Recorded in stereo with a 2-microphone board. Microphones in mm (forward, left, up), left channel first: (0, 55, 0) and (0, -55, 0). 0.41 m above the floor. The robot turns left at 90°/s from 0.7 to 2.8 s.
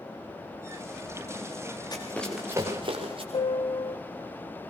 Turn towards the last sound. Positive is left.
turn(degrees=50)  # may be behind; listen again after turning